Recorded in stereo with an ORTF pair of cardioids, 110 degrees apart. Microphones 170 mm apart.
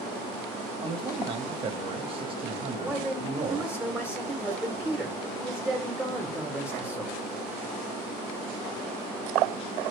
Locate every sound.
0.8 s a man speaking: 30° right, 1.0 m
2.8 s a man speaking: 10° right, 1.1 m